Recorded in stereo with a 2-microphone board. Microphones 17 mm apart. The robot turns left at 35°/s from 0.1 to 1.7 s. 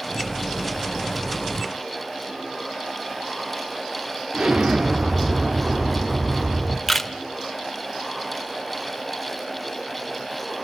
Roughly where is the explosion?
Right.